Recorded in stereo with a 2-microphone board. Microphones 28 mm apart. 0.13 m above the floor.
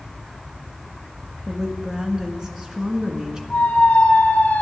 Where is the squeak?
65° left (ahead or behind), 1.9 m.